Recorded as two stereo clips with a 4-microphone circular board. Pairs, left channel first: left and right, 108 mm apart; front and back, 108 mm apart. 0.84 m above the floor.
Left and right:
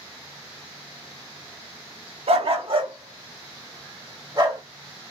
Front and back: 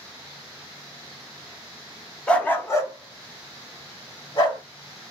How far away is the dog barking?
About 0.7 m.